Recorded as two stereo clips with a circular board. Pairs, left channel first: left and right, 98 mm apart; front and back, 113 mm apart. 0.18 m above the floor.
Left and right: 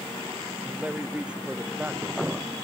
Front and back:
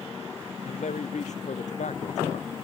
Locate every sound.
0.7 s a man speaking: 10° right